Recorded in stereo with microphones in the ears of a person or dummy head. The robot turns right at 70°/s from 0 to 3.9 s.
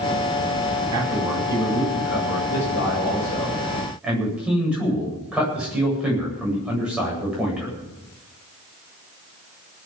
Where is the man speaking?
25° right, 9 m; by 7.8 s 175° right, 9 m.